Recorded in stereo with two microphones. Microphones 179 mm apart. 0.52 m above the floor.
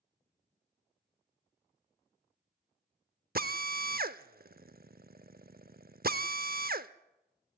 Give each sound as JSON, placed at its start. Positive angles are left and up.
{"t": 3.4, "sound": "a drill", "side_deg": -60, "distance_m": 0.6}